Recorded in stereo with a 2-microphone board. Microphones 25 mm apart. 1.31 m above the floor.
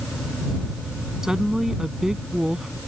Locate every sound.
1.2 s a woman speaking: 20° right (ahead or behind)